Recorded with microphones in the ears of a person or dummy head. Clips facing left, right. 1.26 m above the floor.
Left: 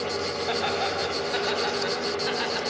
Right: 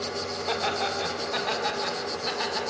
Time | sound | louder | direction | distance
0.5 | laughter | even | 5° left (ahead or behind) | 4.5 m